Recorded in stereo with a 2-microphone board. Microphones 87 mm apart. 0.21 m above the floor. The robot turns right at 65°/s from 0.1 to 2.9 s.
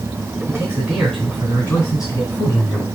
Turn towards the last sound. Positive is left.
turn(degrees=110)